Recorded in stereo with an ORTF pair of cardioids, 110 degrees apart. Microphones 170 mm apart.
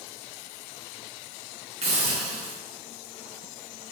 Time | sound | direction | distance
1.8 | a hiss | 40° right | 4 m